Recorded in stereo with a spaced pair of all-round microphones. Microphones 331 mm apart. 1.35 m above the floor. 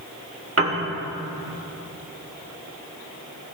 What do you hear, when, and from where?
0.6 s a piano: 40° right (ahead or behind), 1.3 m